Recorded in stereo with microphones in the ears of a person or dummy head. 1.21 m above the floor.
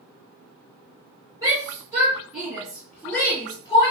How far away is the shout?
About 1.6 m.